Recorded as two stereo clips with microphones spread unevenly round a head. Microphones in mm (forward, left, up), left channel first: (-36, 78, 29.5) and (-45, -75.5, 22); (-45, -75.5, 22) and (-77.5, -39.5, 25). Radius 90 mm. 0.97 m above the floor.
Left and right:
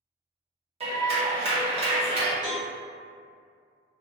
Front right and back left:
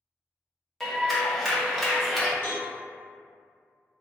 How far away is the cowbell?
About 1.5 m.